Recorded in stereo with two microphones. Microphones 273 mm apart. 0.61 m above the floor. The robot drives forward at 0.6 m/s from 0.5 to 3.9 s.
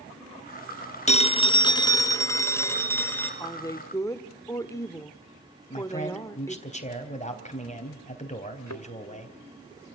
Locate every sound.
1.1 s a phone ringing: 25° left (ahead or behind), 0.6 m; by 3.3 s 10° left (ahead or behind), 1.8 m
3.4 s a woman speaking: 15° left (ahead or behind), 1.1 m; by 6.7 s 10° left (ahead or behind), 1.4 m
5.7 s a man speaking: 25° left (ahead or behind), 3.5 m
8.7 s a thud: 80° left, 2.5 m